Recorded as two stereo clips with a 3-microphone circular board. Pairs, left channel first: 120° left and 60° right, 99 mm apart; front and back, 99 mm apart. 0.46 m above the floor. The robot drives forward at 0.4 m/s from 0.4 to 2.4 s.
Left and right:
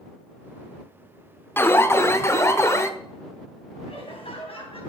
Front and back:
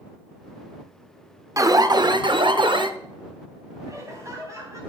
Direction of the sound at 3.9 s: 125° left.